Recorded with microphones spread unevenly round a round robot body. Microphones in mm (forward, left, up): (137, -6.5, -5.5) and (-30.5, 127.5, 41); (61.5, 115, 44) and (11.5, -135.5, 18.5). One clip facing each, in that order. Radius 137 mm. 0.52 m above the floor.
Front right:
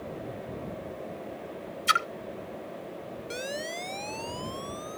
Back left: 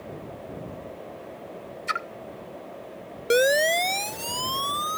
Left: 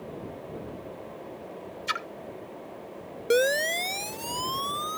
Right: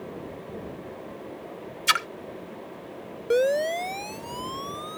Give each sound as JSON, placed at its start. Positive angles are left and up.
{"t": 1.9, "sound": "a splash", "azimuth_deg": -95}
{"t": 3.3, "sound": "a siren", "azimuth_deg": 140}